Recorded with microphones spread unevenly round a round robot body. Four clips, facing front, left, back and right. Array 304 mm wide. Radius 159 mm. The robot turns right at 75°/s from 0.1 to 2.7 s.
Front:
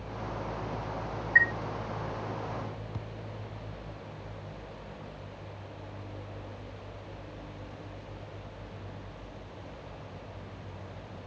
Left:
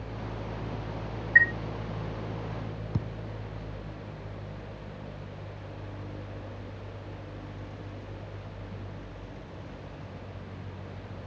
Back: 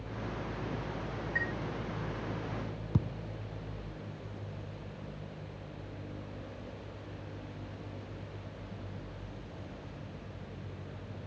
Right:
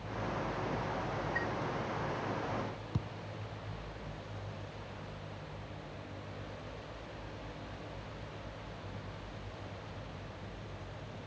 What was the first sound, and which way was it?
A chime, 130° left.